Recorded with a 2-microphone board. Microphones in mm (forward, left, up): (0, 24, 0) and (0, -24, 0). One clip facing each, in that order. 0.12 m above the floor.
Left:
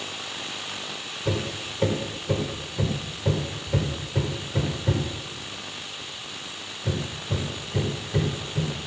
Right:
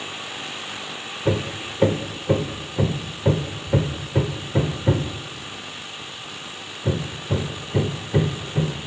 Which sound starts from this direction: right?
Hammering, at 1.2 s.